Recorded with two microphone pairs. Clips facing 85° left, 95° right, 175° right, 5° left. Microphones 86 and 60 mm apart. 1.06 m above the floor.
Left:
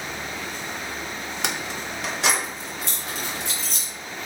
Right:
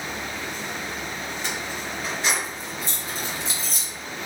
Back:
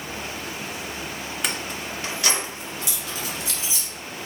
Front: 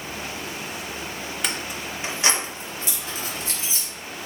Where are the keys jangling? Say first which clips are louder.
Left 1 dB, back 1 dB; 95° left, 0.5 m; by 3.9 s 55° left, 1.9 m.